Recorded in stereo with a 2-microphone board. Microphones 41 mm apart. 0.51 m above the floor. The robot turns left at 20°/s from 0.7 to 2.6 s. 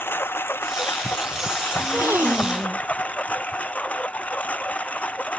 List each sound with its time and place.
0.0 s a lawn mower: 75° left; by 5.4 s 40° left
1.8 s a gasp: 70° right (ahead or behind); by 2.8 s 85° right